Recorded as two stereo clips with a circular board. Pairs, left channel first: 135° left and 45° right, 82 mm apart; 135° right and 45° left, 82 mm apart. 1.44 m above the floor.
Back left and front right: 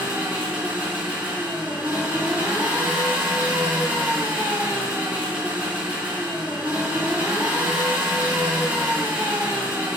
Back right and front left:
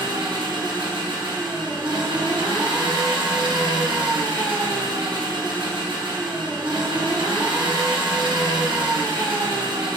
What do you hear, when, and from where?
0.0 s an engine running: 25° left, 0.8 m